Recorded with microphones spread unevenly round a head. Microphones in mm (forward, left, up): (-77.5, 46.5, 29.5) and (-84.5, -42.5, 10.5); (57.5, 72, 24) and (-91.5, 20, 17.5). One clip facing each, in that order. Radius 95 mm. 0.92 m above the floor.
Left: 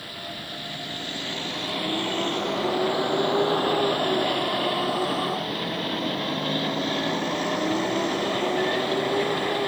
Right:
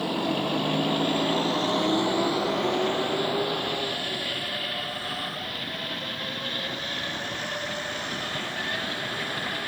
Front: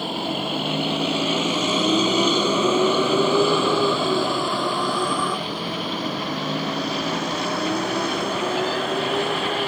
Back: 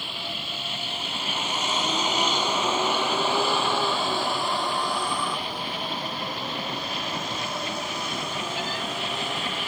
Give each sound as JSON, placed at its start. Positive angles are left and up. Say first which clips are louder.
{"t": 0.0, "sound": "a vehicle", "louder": "right 12 dB, front 12 dB", "azimuth_deg": -40}